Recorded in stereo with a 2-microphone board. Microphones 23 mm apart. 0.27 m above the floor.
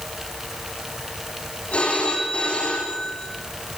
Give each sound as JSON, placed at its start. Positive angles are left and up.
{"t": 1.7, "sound": "a phone ringing", "side_deg": 65, "distance_m": 9.5}